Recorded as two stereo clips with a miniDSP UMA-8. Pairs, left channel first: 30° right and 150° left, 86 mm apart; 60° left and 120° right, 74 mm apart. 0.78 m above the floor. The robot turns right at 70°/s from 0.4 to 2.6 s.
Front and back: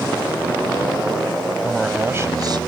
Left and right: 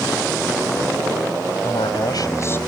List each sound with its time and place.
1.6 s a man speaking: 55° left; by 2.6 s 120° left